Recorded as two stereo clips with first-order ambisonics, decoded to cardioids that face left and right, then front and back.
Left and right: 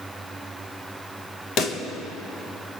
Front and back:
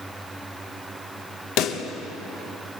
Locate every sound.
1.6 s a pop: 35° left, 1.8 m